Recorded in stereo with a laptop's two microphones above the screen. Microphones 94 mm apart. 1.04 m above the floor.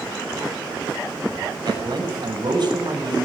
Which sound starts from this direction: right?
A man speaking, at 1.7 s.